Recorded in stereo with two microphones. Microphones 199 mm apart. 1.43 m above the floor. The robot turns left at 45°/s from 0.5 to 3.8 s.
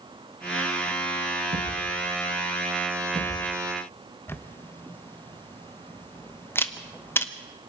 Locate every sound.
1.5 s a thud: 85° right, 9.5 m; by 3.4 s 5° right (ahead or behind), 9.5 m
4.3 s a camera shutter: 10° left (ahead or behind), 1.1 m